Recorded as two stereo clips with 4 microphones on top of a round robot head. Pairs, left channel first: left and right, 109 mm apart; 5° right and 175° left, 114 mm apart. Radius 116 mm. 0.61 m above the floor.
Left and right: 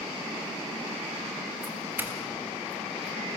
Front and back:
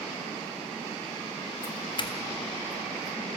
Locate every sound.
1.6 s a doorbell: 25° right, 2 m